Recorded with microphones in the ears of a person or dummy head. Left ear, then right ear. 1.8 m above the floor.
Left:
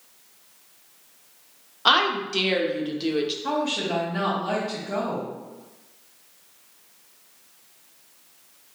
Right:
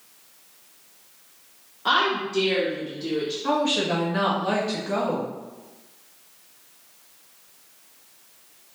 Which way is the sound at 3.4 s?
15° right (ahead or behind).